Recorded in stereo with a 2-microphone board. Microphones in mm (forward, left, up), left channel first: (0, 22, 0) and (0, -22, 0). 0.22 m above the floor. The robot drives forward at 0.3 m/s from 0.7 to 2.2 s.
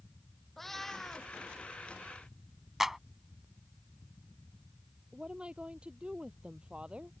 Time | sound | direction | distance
0.6 | a cat meowing | 5° left (ahead or behind) | ?
2.8 | a clap | 5° right (ahead or behind) | ?
5.1 | a woman speaking | 25° right (ahead or behind) | ?